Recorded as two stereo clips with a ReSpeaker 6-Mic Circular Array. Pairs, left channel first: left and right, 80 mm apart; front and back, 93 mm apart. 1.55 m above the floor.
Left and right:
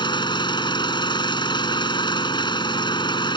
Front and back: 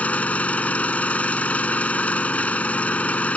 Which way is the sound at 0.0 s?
75° left.